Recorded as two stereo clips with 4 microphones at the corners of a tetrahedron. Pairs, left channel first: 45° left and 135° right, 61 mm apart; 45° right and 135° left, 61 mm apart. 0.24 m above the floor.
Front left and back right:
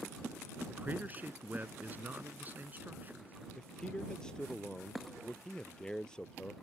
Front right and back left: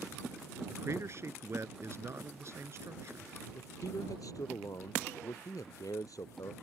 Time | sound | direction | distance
0.7 | a man speaking | 170° left | ?
3.5 | a man speaking | 30° right | ?